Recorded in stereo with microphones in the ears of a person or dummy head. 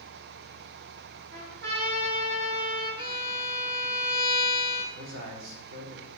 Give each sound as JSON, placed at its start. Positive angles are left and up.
{"t": 1.3, "sound": "a trumpet", "side_deg": -65, "distance_m": 5.5}
{"t": 3.0, "sound": "a violin", "side_deg": -25, "distance_m": 1.0}
{"t": 5.0, "sound": "a man speaking", "side_deg": -80, "distance_m": 3.5}